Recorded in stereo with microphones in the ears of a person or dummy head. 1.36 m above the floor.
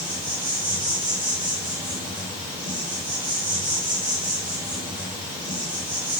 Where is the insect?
30° right (ahead or behind), 7 m.